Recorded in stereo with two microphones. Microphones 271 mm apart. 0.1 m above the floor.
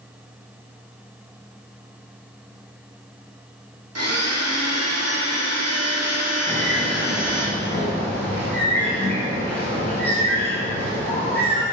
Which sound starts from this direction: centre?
A bird, at 6.5 s.